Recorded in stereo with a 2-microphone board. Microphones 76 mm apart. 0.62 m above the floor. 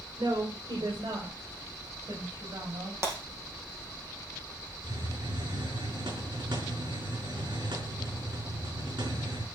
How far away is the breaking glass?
About 5 m.